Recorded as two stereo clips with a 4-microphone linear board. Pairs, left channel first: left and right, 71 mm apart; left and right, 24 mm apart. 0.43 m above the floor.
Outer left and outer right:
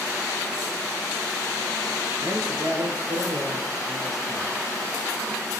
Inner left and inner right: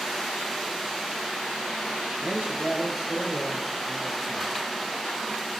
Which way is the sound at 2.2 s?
50° right (ahead or behind).